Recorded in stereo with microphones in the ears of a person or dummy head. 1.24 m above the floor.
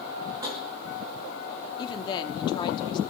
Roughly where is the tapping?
Right.